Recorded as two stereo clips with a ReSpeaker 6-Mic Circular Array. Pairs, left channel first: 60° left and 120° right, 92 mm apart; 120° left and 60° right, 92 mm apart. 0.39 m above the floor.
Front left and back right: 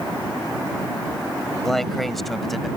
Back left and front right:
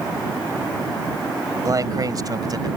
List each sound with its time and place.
1.6 s a man speaking: 25° right; by 2.7 s 30° right